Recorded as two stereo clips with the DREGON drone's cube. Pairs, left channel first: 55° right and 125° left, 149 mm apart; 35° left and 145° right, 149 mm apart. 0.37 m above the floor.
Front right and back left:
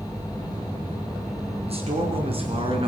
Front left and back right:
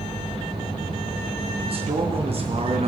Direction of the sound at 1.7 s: 170° left.